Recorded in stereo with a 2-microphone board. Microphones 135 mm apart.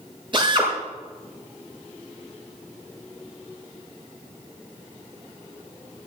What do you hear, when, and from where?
0.3 s a drill: 35° right (ahead or behind), 6 m